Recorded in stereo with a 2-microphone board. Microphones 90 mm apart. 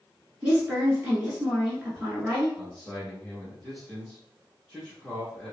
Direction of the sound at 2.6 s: 5° left (ahead or behind).